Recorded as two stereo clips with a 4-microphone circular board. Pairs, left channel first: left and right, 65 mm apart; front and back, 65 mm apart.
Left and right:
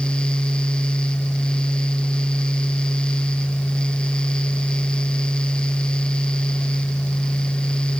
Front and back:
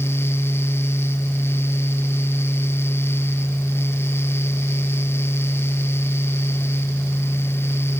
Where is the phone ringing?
No phone ringing in this recording.